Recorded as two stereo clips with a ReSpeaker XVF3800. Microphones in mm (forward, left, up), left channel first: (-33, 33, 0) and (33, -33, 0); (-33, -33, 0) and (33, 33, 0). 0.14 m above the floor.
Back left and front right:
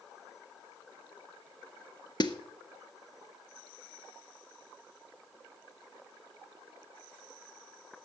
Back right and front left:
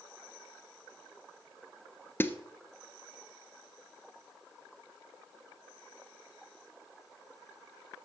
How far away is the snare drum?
About 0.9 m.